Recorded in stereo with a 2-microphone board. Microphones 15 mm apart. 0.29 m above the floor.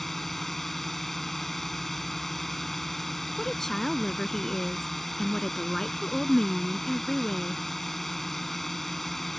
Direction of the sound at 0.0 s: 15° left (ahead or behind).